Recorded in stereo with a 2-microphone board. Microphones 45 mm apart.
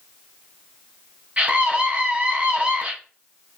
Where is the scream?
30° right (ahead or behind), 1.1 m.